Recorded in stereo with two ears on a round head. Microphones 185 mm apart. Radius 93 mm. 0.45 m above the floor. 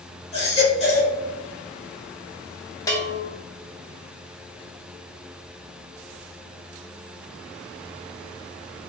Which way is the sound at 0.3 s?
30° left (ahead or behind).